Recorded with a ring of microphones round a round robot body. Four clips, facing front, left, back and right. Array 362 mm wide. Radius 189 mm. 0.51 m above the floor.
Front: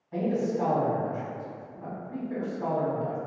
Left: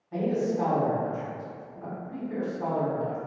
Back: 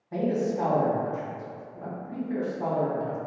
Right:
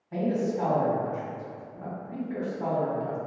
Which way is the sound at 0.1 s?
165° right.